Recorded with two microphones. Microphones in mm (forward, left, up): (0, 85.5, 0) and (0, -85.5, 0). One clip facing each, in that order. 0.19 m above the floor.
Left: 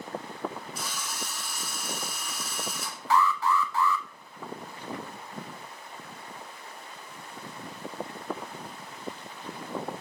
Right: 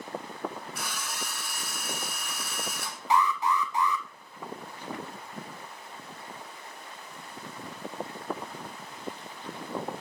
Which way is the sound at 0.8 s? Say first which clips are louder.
Even; 55° right (ahead or behind).